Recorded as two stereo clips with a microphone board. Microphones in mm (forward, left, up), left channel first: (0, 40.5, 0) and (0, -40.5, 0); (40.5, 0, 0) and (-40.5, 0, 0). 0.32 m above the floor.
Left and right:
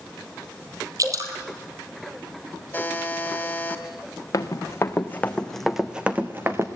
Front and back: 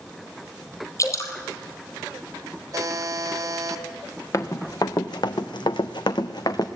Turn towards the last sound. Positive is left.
turn(degrees=-35)